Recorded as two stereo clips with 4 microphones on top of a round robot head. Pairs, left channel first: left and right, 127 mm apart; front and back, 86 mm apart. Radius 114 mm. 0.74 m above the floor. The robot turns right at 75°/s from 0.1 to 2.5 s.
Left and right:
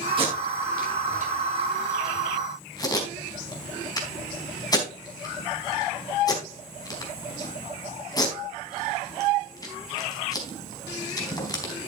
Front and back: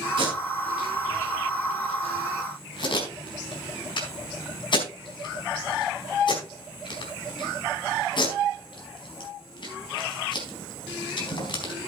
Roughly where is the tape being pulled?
Behind right.